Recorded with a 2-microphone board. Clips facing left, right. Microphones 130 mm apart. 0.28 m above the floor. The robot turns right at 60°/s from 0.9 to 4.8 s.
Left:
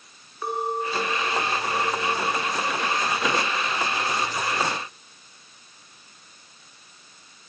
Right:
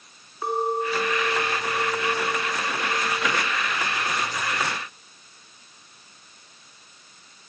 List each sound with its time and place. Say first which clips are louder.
0.4 s a clink: right 2 dB; 155° right, 1.9 m; by 3.6 s 10° left, 1.9 m